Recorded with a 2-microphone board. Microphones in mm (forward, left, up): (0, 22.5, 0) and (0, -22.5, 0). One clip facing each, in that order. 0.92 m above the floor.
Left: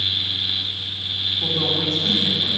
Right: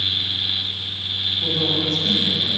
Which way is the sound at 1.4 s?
20° left (ahead or behind).